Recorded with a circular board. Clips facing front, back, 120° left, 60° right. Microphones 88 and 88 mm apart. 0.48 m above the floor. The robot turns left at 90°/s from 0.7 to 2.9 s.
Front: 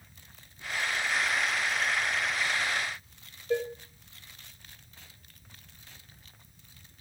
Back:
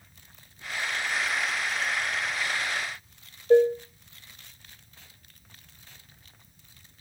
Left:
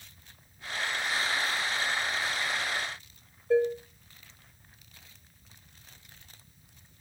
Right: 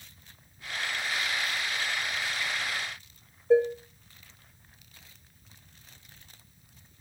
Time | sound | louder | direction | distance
3.5 | dishes clattering | back 12 dB, right 3 dB | 125° right | 1.4 m